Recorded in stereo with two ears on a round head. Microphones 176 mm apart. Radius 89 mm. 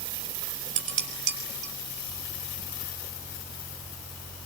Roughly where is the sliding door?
No sliding door in this recording.